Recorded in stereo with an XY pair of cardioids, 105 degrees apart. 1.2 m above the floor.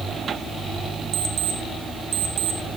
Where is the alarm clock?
55° right, 1.8 m.